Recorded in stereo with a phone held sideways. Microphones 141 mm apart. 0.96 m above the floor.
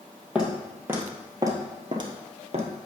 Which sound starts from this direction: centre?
Footsteps, at 0.3 s.